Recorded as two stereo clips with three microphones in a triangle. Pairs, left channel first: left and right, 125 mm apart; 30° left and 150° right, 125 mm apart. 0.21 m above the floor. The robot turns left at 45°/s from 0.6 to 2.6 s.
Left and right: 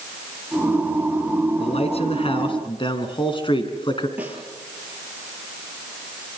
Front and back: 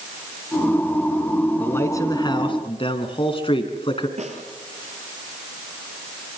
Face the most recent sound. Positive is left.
turn(degrees=-165)